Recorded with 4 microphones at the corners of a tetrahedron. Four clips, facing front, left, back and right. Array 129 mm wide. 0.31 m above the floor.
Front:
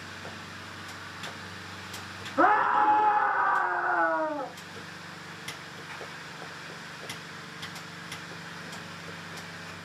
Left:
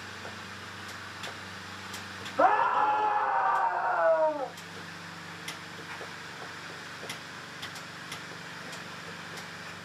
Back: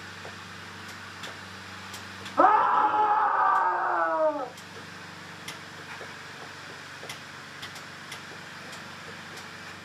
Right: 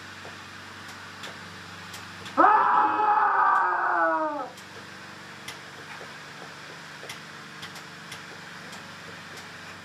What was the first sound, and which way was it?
A scream, 110° right.